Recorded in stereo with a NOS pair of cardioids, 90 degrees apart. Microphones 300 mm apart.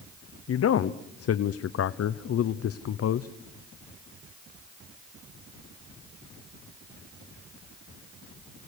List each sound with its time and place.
0.5 s a man speaking: 50° left, 0.9 m